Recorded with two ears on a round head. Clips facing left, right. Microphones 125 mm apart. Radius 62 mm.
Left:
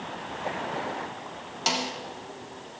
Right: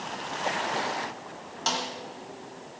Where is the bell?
No bell in this recording.